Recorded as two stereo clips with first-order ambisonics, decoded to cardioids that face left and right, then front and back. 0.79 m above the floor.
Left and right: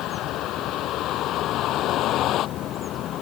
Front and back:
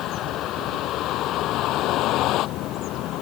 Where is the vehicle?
45° left; by 3.2 s 40° left.